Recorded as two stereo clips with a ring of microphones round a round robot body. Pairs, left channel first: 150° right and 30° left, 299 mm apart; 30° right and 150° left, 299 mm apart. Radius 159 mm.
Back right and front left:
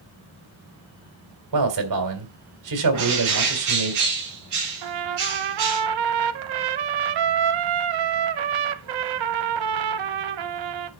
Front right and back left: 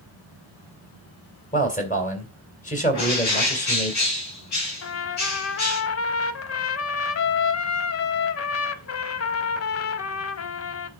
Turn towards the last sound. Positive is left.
turn(degrees=15)